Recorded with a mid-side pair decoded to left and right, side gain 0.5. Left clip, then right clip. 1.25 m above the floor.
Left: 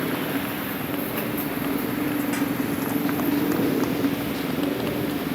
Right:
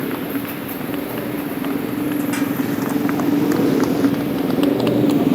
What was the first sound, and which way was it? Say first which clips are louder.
A motorcycle: right 2 dB; 25° right.